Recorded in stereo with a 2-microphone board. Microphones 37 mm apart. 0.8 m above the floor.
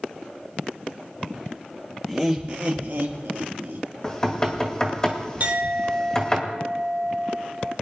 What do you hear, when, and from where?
2.1 s laughter: 5° right (ahead or behind), 1.0 m; by 3.9 s 65° right (ahead or behind), 2 m
4.0 s knocking: 15° left (ahead or behind), 2 m
5.4 s a clink: 45° right (ahead or behind), 1.3 m